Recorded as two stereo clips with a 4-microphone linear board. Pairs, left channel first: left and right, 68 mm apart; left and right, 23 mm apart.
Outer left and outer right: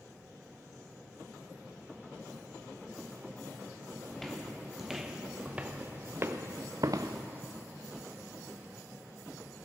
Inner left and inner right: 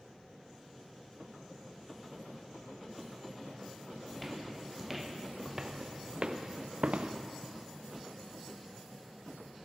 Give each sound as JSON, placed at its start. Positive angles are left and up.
{"t": 4.1, "sound": "footsteps", "side_deg": 5, "distance_m": 1.7}